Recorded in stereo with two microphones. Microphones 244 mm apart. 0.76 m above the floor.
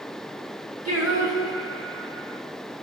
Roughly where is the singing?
Right.